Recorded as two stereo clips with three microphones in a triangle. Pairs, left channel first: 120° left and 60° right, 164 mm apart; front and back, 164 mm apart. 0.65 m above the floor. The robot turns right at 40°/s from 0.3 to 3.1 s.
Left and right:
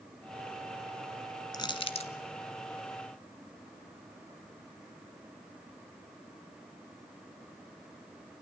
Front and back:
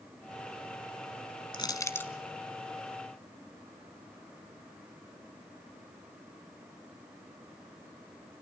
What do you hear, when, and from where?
1.5 s crushing: 60° left, 1.1 m; by 2.1 s 80° left, 1.1 m